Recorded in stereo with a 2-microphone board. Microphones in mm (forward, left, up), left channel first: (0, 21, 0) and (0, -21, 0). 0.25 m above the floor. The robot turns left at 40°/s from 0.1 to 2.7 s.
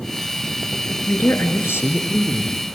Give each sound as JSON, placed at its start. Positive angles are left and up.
{"t": 1.1, "sound": "a man speaking", "azimuth_deg": 120, "distance_m": 4.0}